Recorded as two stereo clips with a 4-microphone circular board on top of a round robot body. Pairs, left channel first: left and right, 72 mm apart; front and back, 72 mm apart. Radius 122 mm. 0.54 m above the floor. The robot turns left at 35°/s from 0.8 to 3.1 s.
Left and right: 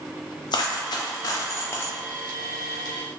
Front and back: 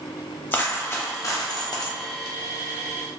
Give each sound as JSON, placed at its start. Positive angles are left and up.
{"t": 0.5, "sound": "a dropped coin", "azimuth_deg": 65, "distance_m": 0.5}